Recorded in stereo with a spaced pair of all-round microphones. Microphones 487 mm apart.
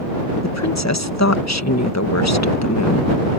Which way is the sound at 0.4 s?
35° left (ahead or behind).